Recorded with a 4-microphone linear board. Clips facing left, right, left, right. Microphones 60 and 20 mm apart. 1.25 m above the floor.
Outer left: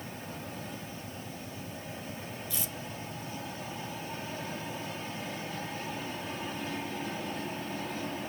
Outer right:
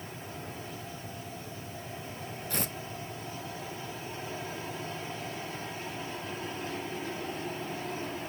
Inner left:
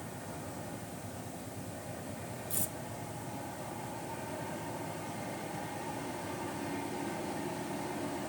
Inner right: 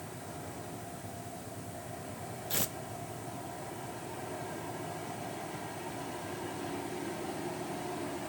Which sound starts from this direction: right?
Tearing paper, at 2.5 s.